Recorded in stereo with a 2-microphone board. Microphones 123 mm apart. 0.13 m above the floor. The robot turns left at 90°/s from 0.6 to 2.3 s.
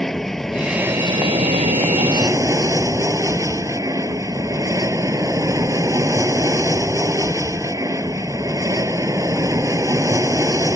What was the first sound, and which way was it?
An aircraft, 5° left.